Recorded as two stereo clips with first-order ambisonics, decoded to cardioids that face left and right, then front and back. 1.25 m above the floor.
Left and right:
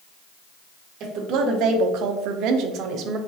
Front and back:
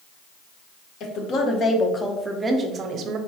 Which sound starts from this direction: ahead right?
A woman speaking, at 1.0 s.